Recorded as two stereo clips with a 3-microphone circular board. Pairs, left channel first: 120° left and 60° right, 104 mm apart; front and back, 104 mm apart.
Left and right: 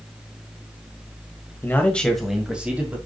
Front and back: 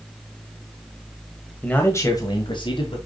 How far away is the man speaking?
About 1.7 m.